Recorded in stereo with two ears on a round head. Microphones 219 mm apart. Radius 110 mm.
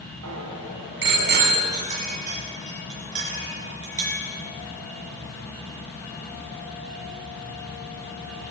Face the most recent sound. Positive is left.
turn(degrees=-30)  # may be behind; listen again after turning